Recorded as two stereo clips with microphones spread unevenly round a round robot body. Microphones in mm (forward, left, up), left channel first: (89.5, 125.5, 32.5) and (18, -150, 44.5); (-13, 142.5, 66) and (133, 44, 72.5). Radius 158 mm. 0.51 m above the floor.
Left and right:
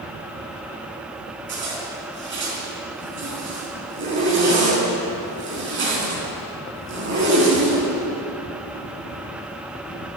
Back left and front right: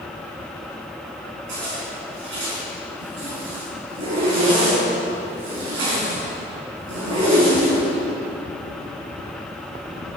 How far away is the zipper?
About 5 m.